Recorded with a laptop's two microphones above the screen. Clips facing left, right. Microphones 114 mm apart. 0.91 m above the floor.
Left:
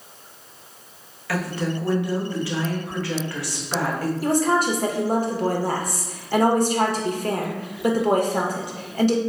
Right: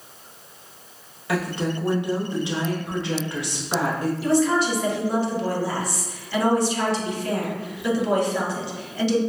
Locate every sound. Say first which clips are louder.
1.3 s a woman speaking: right 1 dB; 20° right (ahead or behind), 0.8 m
4.2 s a woman speaking: even; 45° left (ahead or behind), 0.7 m